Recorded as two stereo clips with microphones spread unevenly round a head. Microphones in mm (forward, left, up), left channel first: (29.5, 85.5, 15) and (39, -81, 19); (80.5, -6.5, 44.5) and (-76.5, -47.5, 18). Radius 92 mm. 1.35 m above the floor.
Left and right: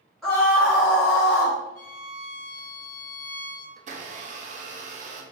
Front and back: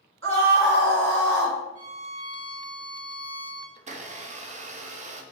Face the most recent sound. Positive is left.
turn(degrees=-130)